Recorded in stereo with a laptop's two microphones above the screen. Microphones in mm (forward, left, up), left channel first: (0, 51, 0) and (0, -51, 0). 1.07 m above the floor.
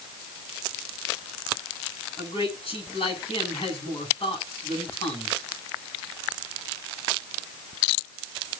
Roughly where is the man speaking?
Left.